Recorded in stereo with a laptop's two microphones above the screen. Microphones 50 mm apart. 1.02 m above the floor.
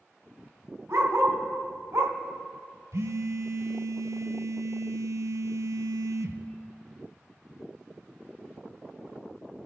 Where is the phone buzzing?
70° right (ahead or behind), 0.7 m.